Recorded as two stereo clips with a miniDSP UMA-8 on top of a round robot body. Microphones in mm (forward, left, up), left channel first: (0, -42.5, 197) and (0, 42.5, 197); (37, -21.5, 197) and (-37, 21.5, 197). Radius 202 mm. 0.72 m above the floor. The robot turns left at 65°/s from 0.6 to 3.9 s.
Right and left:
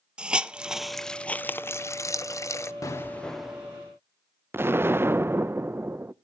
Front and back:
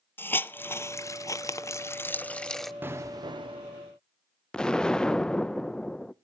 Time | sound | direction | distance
0.2 | a hiss | 20° left | 0.8 m
2.8 | an explosion | 145° right | 0.6 m
4.5 | an explosion | 45° left | 0.6 m